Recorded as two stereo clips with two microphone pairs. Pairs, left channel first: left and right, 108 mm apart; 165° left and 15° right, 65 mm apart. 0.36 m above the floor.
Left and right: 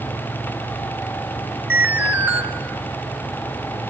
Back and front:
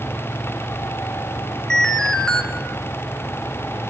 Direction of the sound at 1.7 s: 130° right.